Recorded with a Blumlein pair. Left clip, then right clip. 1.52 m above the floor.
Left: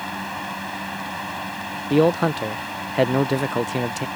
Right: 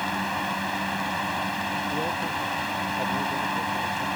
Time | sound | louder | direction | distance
0.0 | a fan | right 2 dB | 10° right | ?
1.9 | a man speaking | left 8 dB | 35° left | ?